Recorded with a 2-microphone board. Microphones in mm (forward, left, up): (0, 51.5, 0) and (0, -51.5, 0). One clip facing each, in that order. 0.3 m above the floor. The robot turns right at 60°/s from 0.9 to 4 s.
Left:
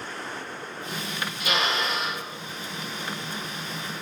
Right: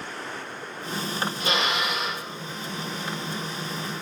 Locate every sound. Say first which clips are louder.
1.4 s a drill: left 1 dB; 35° right, 3.5 m; by 2.2 s 10° left, 3.5 m